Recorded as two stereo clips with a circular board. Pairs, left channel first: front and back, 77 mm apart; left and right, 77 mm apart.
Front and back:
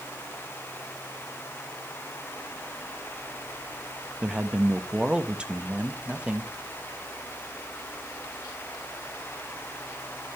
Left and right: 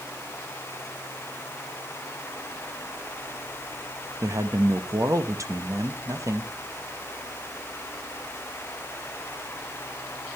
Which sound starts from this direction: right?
A man speaking, at 4.2 s.